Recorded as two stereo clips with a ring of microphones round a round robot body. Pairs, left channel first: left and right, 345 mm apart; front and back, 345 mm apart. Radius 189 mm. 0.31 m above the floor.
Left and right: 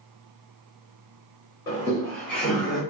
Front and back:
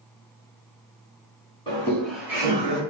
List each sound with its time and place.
1.7 s laughter: 40° left, 1.5 m; by 2.8 s 170° right, 1.5 m